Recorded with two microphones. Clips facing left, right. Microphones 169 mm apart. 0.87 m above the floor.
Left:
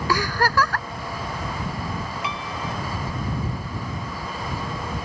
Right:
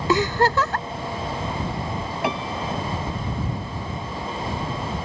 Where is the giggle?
25° right (ahead or behind).